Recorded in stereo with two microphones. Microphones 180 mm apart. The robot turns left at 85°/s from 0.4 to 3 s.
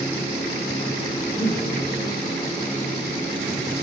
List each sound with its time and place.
1.3 s breathing: 165° right, 6 m; by 1.6 s 165° left, 6 m